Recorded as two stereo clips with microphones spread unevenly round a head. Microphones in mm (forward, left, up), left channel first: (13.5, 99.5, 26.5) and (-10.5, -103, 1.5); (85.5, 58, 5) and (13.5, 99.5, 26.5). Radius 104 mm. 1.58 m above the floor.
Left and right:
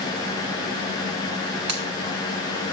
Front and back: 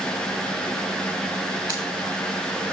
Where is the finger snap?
95° right, 5 m.